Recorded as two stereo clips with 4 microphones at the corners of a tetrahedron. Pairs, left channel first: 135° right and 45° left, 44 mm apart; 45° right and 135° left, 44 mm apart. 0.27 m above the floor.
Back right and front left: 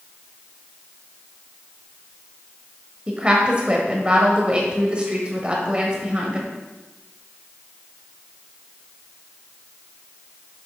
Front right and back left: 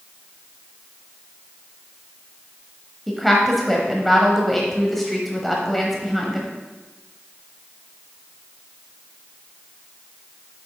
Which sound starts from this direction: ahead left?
A woman speaking, at 3.1 s.